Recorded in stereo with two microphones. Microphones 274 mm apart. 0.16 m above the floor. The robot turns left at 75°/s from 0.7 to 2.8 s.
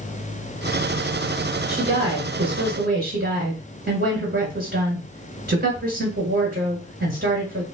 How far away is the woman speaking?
About 1.4 m.